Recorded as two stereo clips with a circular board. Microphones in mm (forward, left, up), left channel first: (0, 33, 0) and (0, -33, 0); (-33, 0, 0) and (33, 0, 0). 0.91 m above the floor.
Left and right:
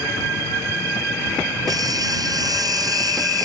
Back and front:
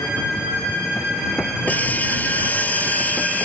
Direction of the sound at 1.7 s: 115° right.